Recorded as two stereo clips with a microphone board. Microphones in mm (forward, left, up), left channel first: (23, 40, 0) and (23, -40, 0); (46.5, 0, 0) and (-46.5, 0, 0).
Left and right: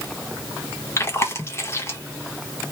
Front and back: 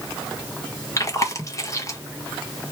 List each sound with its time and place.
1.0 s chewing: 45° left, 1.1 m